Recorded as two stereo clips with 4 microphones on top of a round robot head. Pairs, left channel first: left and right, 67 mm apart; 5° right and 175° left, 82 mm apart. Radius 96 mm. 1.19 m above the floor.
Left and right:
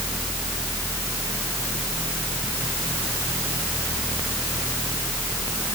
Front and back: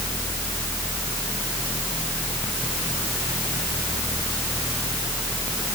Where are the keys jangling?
I don't hear keys jangling.